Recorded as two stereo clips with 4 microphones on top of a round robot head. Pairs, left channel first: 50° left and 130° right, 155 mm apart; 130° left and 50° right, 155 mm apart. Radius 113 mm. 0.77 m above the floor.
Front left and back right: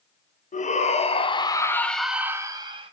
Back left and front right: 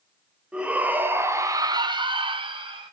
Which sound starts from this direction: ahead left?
A shout, at 0.5 s.